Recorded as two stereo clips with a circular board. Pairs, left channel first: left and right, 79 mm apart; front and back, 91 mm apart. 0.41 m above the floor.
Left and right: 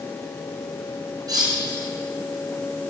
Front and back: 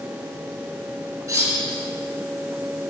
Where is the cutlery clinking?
130° right, 4 m.